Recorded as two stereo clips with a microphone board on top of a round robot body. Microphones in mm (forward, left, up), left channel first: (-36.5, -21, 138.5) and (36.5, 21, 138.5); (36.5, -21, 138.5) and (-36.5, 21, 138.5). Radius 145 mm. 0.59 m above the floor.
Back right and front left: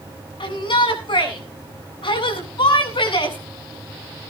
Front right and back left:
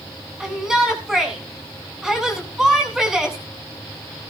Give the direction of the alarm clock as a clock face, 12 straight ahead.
No alarm clock in this recording.